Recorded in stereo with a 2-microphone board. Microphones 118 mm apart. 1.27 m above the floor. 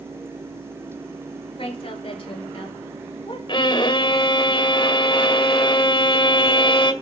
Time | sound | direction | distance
1.6 | a woman speaking | 50° left (ahead or behind) | 5 m
3.5 | a violin | 45° left (ahead or behind) | 1.8 m